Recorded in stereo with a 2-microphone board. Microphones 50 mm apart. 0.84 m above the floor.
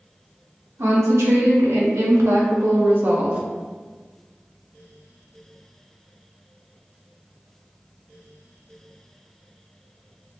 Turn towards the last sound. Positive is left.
turn(degrees=-25)  # may be behind; listen again after turning